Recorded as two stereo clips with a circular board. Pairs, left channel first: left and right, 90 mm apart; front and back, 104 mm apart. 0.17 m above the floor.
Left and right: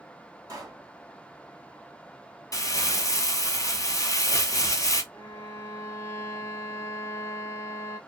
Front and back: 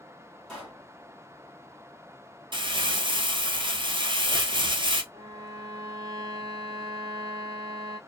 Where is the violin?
140° left, 0.6 m.